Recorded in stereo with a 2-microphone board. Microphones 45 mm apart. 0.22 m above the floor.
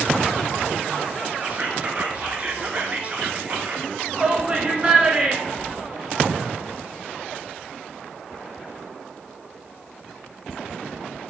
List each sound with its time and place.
1.4 s whispering: 30° right (ahead or behind), 3 m
4.1 s a shout: 20° right (ahead or behind), 2.5 m